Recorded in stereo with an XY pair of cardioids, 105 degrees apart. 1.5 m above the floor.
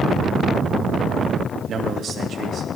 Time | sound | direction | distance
1.7 | a man speaking | 55° right | 3 m